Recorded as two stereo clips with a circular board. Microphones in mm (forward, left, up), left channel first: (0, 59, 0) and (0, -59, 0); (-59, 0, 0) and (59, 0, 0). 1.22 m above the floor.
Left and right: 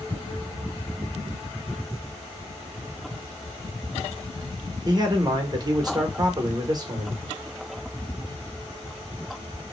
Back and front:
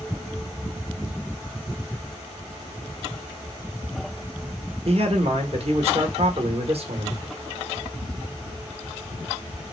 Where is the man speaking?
35° right, 1.2 m.